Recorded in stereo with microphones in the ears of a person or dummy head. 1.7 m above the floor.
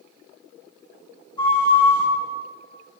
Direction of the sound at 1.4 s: 25° left (ahead or behind).